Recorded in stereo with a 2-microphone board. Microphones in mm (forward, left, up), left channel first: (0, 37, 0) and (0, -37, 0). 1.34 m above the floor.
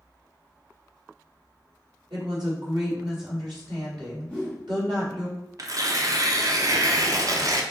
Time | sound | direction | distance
2.1 | a woman speaking | 70° right (ahead or behind) | 2.5 m
4.3 | a whoosh | 15° left (ahead or behind) | 1.9 m
5.6 | tearing paper | 50° right (ahead or behind) | 0.5 m